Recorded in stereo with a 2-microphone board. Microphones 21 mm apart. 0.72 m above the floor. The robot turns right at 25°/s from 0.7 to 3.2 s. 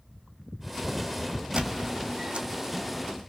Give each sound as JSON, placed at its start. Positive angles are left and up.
{"t": 1.6, "sound": "a squeak", "side_deg": -55, "distance_m": 1.4}